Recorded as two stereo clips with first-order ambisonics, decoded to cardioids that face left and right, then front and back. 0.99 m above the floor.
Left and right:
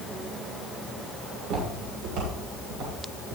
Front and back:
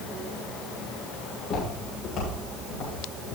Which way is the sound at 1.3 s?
60° right.